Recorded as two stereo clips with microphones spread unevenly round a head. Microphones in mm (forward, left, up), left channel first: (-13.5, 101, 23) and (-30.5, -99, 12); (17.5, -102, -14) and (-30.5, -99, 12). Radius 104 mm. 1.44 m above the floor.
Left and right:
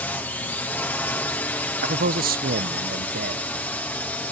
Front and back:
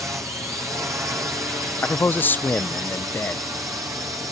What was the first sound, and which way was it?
A drone, 160° left.